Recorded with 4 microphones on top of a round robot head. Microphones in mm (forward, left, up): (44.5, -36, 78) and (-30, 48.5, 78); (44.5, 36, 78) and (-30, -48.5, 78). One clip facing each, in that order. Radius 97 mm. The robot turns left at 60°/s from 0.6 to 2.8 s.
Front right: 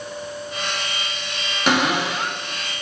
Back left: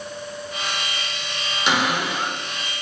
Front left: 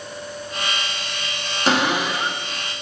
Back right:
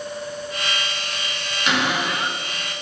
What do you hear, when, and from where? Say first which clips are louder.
1.7 s a cupboard door: front right 2 dB, front left 3 dB; 5° right, 0.9 m; by 2.4 s 50° right, 0.9 m